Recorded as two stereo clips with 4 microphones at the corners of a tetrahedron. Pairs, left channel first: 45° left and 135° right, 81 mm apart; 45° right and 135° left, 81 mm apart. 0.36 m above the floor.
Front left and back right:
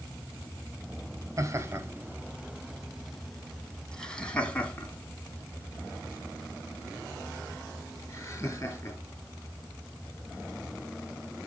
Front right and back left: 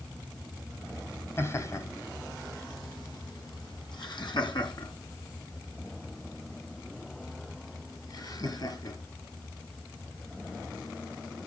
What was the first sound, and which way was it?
Laughter, 95° right.